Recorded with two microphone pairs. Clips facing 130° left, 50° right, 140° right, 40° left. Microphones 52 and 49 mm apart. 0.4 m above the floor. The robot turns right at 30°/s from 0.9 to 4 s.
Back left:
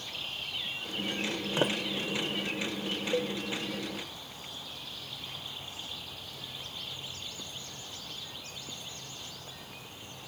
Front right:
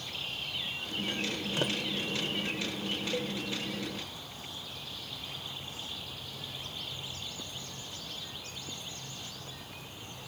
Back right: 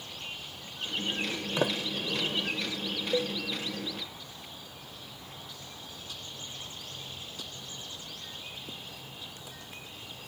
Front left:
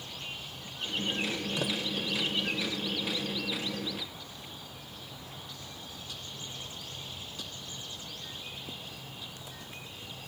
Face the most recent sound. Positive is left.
turn(degrees=-145)